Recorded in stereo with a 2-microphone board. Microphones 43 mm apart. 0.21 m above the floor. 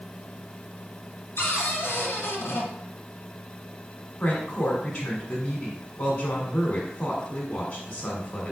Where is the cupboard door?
50° left (ahead or behind), 1.5 m.